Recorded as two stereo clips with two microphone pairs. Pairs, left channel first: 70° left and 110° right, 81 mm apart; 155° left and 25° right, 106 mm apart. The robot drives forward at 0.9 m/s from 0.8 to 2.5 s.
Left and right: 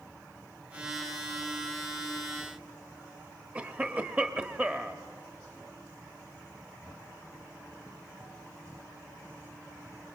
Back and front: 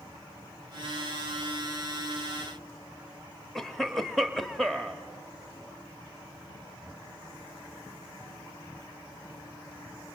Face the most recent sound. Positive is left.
turn(degrees=-125)